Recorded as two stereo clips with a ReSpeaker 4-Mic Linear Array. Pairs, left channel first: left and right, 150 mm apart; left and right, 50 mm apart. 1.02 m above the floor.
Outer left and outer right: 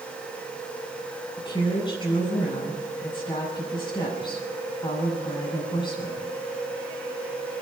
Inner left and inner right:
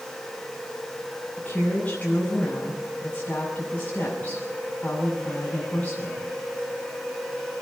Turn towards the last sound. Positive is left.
turn(degrees=30)  # may be behind; listen again after turning